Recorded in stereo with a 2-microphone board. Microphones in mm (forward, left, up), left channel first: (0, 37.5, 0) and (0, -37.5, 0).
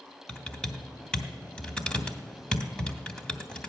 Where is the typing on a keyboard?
15° left (ahead or behind), 1.2 m.